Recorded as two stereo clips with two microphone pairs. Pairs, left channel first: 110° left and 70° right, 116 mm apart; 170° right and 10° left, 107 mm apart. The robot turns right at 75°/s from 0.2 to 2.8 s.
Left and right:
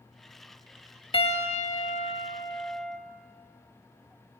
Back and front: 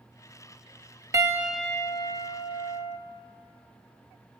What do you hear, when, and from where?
1.1 s a piano: 70° left, 1.4 m; by 3.0 s 165° right, 1.4 m